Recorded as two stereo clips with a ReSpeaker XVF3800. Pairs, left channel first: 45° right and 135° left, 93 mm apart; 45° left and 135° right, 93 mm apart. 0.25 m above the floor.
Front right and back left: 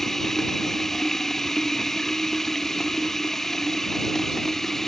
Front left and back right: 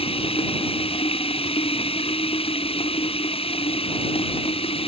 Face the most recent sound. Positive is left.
turn(degrees=40)